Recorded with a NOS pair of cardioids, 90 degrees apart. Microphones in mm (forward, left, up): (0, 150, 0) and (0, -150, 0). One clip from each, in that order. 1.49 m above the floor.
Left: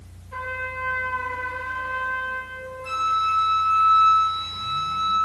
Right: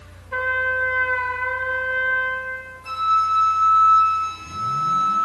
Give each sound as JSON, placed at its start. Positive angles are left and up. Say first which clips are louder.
{"t": 0.3, "sound": "a trumpet", "louder": "right 8 dB", "azimuth_deg": -50, "distance_m": 2.0}
{"t": 2.8, "sound": "a flute", "louder": "right 3 dB", "azimuth_deg": 0, "distance_m": 3.5}